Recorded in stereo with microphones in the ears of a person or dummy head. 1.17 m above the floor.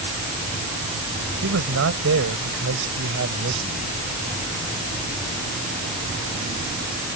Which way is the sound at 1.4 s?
75° right (ahead or behind).